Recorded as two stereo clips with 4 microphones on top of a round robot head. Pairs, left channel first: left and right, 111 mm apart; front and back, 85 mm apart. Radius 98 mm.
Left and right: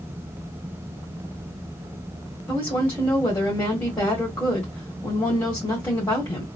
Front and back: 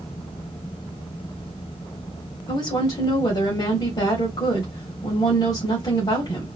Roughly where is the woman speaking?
Ahead.